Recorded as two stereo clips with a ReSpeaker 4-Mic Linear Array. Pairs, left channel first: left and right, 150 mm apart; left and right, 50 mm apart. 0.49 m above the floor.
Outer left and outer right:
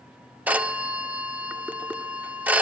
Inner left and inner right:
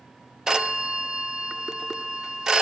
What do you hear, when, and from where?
0.5 s a phone ringing: 10° right (ahead or behind), 0.8 m